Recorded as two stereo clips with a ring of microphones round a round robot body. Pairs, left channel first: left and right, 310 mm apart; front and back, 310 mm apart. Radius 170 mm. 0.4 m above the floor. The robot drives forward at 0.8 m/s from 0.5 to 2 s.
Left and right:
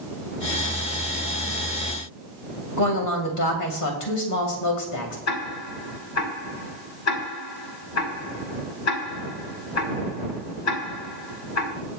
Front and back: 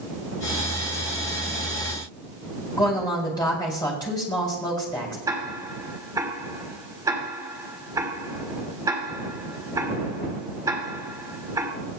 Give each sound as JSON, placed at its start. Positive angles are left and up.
{"t": 2.8, "sound": "a woman speaking", "azimuth_deg": 75, "distance_m": 2.5}
{"t": 5.3, "sound": "ticking", "azimuth_deg": 105, "distance_m": 2.0}